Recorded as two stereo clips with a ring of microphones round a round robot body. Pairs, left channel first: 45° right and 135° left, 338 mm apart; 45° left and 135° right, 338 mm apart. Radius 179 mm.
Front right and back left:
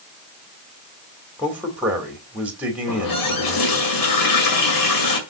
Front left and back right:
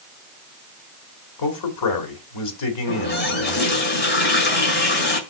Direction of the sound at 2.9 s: 15° right.